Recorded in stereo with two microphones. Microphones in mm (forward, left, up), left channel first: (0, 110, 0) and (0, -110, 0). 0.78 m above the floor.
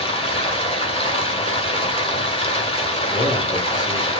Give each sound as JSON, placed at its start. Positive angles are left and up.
{"t": 0.0, "sound": "running water", "side_deg": 25, "distance_m": 1.6}
{"t": 3.1, "sound": "a man speaking", "side_deg": 30, "distance_m": 5.5}